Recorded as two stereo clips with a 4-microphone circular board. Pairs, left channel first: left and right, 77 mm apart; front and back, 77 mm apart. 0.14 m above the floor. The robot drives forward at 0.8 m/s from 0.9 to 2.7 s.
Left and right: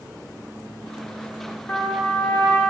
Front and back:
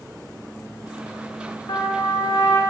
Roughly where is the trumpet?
Ahead.